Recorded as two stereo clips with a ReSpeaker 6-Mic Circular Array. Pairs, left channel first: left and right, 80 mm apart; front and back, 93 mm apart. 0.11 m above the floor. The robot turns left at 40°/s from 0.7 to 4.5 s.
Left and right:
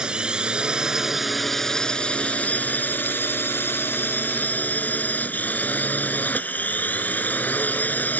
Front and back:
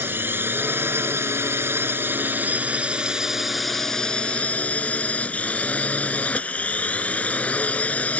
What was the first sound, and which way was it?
A drone, 155° right.